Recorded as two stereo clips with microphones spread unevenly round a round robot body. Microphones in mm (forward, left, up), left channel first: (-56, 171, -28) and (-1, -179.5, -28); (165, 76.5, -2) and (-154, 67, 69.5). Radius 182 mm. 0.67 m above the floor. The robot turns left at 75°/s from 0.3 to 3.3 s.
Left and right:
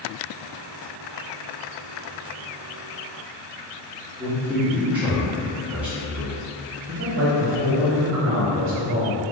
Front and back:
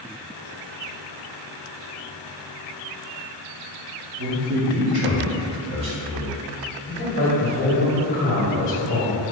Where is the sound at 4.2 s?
160° right, 0.5 m.